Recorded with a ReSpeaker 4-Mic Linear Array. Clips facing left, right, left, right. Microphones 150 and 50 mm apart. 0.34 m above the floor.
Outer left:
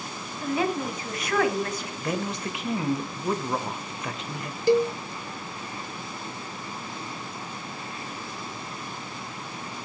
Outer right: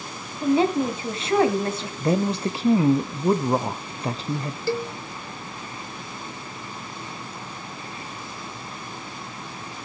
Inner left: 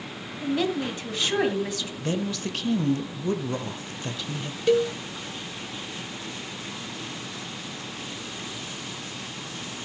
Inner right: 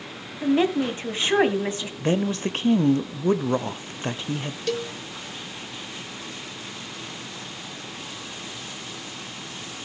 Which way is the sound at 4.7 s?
15° left (ahead or behind).